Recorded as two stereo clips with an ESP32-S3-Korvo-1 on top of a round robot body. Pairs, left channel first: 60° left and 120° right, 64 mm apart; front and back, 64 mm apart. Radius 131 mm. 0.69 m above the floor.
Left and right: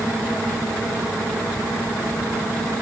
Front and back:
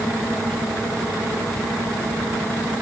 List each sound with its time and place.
Only background noise.